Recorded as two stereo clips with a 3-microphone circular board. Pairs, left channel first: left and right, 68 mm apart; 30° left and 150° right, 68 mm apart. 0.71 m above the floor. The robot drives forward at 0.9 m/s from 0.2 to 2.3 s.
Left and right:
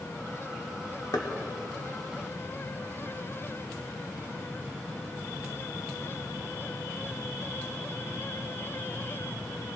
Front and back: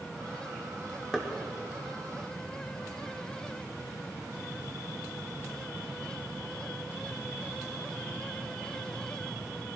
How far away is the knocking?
About 1.3 m.